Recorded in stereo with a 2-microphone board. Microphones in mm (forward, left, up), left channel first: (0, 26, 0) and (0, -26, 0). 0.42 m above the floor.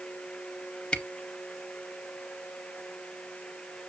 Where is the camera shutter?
20° left (ahead or behind), 0.7 m.